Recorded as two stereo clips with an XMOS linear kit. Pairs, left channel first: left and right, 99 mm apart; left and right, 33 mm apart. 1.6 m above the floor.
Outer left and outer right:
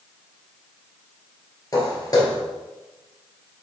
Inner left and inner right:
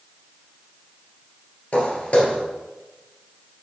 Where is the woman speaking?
No woman speaking in this recording.